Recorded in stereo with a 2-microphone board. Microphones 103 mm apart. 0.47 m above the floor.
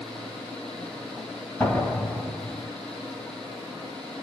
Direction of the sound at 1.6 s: 20° left (ahead or behind).